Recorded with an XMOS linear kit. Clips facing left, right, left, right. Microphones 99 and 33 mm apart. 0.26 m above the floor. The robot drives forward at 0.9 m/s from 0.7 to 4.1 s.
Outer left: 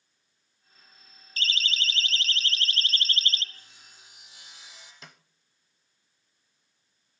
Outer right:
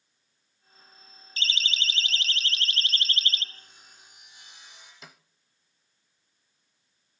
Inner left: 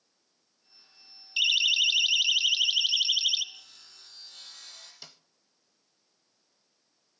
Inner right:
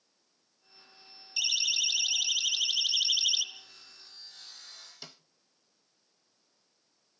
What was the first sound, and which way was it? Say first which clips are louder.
A siren: even, inner left 7 dB; 45° left (ahead or behind).